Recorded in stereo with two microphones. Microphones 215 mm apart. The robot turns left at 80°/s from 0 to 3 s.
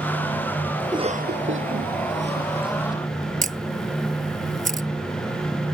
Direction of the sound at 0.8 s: 10° right (ahead or behind).